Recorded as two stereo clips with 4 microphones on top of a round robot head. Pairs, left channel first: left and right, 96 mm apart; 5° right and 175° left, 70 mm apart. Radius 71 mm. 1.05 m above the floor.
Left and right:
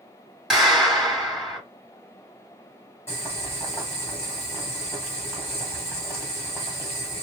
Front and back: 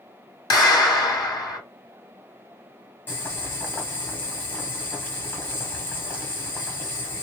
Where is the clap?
Straight ahead, 2 m.